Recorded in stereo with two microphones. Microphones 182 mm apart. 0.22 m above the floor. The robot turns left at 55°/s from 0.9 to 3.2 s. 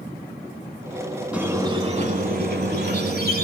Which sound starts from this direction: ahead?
A squeak, at 1.3 s.